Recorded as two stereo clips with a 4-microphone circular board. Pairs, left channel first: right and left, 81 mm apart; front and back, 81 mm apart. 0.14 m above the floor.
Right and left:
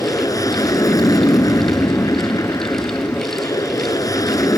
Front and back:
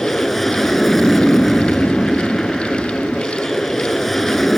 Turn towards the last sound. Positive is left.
turn(degrees=-90)